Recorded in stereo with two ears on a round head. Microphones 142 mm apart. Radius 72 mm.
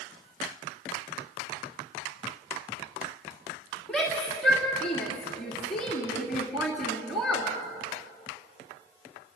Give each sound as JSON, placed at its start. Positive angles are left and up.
{"t": 3.9, "sound": "a shout", "side_deg": 5, "distance_m": 2.5}